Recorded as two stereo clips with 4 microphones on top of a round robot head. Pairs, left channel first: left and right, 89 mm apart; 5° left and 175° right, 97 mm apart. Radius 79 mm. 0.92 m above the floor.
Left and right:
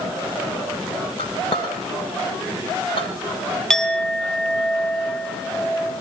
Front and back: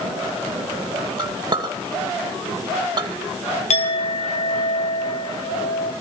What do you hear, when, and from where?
1.2 s a clink: 140° left, 2.5 m
3.7 s a clink: 5° left, 2.5 m